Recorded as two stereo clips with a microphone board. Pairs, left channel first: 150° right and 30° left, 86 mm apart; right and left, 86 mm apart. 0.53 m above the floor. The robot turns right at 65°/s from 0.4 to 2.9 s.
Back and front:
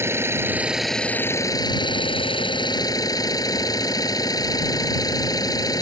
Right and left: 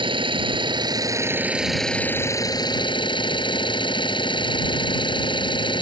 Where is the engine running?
90° left; by 5.8 s 105° right.